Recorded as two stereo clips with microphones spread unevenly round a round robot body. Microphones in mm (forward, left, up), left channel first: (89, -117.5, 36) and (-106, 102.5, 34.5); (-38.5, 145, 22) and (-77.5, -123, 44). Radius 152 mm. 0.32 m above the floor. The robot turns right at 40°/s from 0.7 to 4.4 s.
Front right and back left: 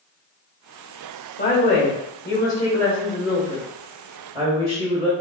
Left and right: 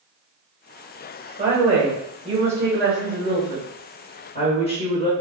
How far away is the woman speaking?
About 1.2 m.